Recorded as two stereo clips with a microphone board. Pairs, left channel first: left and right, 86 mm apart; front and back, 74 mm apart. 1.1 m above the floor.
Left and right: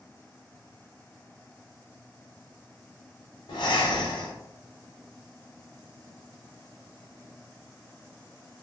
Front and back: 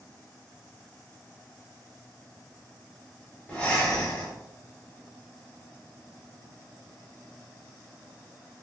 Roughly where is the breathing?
Left.